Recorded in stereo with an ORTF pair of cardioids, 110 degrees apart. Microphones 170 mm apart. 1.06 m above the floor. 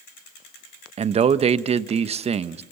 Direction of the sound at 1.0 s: 40° right.